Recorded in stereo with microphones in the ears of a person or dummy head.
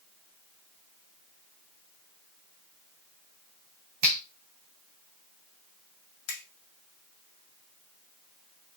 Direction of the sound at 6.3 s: 80° left.